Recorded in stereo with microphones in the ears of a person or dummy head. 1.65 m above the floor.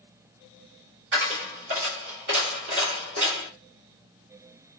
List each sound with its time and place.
1.1 s a dropped coin: 60° right (ahead or behind), 2.0 m